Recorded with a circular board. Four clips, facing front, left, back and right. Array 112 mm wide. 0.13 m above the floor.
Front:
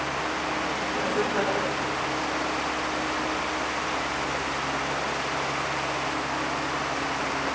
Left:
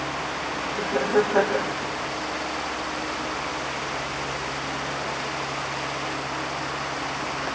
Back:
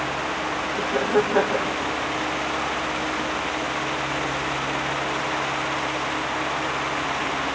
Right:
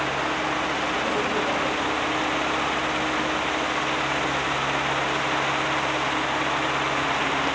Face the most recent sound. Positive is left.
turn(degrees=140)